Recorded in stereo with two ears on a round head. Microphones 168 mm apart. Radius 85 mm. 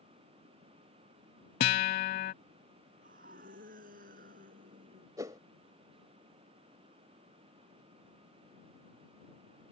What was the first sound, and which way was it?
A guitar, 50° left (ahead or behind).